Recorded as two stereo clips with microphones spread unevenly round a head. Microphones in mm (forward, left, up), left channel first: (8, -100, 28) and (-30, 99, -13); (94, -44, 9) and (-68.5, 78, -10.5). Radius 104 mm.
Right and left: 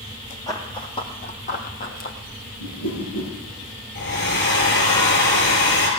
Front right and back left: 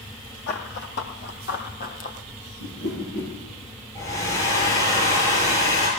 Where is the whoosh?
80° right, 5.5 m.